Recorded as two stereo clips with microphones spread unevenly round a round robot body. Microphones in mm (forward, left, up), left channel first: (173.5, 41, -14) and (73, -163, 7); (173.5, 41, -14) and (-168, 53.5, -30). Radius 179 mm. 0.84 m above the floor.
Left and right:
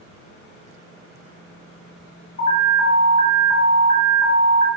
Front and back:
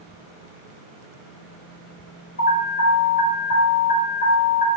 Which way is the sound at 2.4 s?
60° left.